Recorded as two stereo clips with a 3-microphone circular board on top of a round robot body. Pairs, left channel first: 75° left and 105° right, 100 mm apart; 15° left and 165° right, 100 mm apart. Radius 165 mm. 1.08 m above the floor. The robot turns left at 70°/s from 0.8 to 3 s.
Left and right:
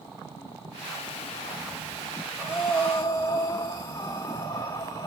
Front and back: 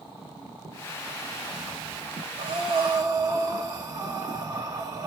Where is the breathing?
Straight behind, 1.1 m; by 5.1 s 140° left, 1.1 m.